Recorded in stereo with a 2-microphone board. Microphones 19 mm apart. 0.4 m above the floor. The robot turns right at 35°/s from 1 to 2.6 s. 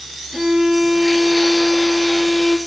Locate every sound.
0.3 s a violin: 10° right, 4.5 m; by 2.6 s 45° left, 4.5 m